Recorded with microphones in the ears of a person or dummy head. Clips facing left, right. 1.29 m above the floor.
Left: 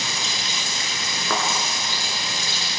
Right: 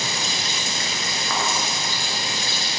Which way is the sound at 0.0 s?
45° right (ahead or behind).